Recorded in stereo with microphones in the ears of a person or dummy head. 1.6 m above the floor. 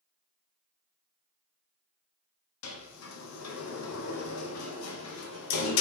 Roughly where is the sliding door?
Left.